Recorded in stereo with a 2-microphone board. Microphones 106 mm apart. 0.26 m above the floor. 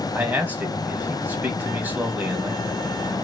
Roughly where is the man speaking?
Centre.